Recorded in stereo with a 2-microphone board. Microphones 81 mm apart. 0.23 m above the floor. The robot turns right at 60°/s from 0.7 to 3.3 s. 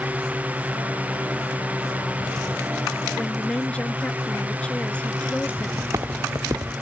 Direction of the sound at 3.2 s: 5° left (ahead or behind).